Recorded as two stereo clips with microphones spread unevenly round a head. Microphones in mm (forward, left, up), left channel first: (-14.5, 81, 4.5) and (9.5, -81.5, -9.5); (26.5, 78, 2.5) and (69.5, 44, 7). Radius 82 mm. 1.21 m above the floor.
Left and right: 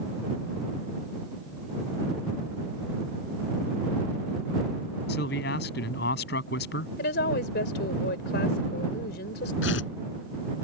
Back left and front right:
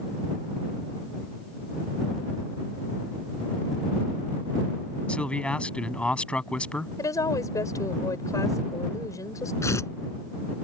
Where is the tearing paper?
115° left.